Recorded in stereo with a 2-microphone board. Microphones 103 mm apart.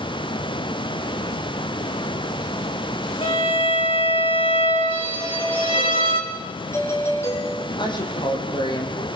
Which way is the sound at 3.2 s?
60° left (ahead or behind).